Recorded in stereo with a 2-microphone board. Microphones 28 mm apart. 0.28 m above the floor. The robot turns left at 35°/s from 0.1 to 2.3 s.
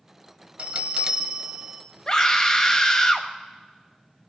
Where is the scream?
30° left (ahead or behind), 1.0 m; by 3.3 s 25° left (ahead or behind), 1.0 m.